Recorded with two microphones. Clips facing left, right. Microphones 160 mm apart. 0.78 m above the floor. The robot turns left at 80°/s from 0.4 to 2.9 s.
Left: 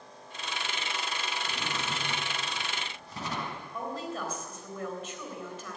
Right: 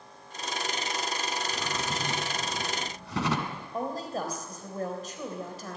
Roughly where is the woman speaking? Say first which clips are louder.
Right 4 dB; right.